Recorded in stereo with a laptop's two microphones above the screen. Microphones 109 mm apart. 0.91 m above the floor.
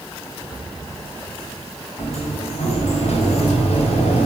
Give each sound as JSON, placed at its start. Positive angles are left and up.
{"t": 2.0, "sound": "a sliding door", "side_deg": 85, "distance_m": 3.0}